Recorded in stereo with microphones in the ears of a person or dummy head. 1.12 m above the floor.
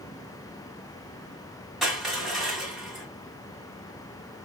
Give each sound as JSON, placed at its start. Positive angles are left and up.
{"t": 1.8, "sound": "crushing", "side_deg": 0, "distance_m": 1.6}